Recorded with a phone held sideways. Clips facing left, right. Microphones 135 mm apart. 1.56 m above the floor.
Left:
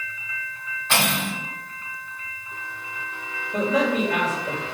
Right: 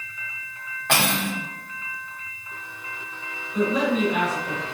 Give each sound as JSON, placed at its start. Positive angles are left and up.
{"t": 0.9, "sound": "cutlery clinking", "side_deg": -60, "distance_m": 3.0}
{"t": 3.5, "sound": "a man speaking", "side_deg": 70, "distance_m": 3.5}